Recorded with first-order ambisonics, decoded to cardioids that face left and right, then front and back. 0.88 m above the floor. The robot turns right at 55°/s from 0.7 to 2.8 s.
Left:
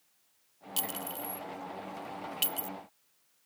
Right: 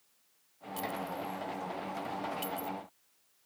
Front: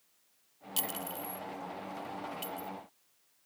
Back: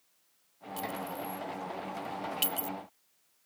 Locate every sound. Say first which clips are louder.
0.8 s a clink: right 2 dB, back 2 dB; 45° left; by 2.7 s 150° left